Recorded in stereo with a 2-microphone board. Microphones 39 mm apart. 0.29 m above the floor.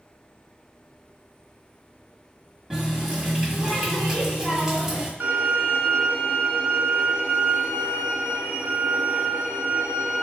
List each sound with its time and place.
2.7 s a running tap: 20° right (ahead or behind), 1.2 m
5.2 s a violin: 70° right (ahead or behind), 1.2 m